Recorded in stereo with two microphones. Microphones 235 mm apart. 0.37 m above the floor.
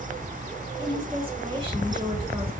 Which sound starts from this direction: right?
A woman speaking, at 0.8 s.